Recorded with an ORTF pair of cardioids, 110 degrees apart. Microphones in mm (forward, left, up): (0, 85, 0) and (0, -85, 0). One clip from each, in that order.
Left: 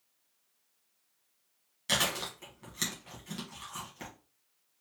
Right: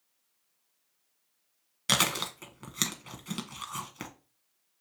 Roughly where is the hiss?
I don't hear a hiss.